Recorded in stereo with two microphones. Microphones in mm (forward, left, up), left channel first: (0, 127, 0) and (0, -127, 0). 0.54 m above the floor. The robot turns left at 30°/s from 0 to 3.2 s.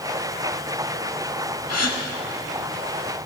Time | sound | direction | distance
1.7 | a gasp | 75° left (ahead or behind) | 0.7 m